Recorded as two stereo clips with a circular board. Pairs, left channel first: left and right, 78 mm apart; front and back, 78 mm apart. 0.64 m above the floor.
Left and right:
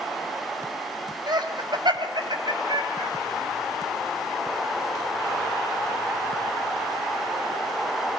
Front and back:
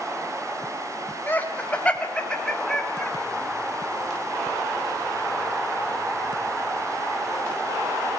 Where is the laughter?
65° right, 4 m; by 3.1 s 85° right, 5 m.